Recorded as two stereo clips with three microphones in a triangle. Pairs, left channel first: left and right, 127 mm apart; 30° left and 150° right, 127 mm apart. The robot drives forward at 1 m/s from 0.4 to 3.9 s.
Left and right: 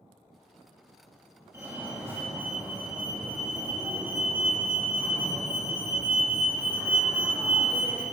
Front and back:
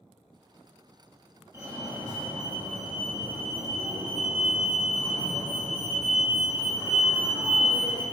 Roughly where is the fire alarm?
Behind right.